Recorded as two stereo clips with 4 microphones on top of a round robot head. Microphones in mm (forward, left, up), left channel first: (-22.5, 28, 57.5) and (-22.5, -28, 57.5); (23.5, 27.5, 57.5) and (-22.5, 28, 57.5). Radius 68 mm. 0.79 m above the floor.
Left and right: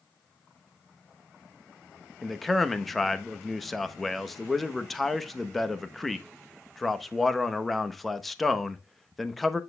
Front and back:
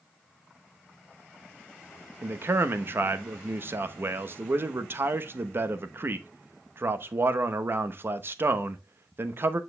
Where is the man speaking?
175° left, 0.9 m.